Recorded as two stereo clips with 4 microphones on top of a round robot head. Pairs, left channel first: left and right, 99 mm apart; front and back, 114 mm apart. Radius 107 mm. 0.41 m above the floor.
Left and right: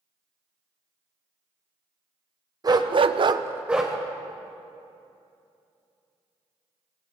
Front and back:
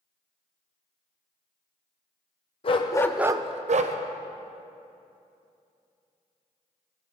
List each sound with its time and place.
2.6 s a dog barking: 40° right, 1.0 m; by 4.0 s straight behind, 1.2 m